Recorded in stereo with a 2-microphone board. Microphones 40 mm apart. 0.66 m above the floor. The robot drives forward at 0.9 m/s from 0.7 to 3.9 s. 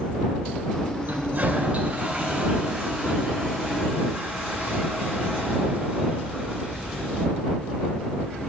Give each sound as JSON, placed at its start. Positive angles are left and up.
{"t": 1.1, "sound": "a toilet flushing", "side_deg": -60, "distance_m": 1.0}